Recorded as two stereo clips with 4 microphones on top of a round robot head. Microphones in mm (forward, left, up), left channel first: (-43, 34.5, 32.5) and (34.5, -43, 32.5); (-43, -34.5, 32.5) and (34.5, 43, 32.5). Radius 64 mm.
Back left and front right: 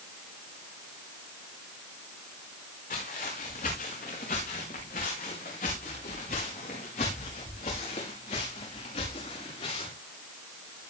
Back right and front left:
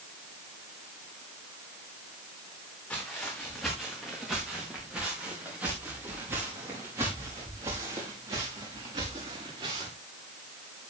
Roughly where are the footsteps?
Behind left.